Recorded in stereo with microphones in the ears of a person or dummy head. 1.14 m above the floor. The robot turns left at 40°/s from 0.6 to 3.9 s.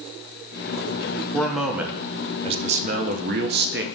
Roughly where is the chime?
I don't hear a chime.